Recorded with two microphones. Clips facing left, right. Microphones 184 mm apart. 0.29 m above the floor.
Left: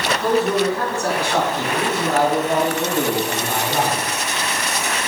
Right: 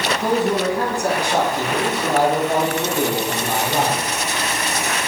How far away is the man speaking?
About 3.5 m.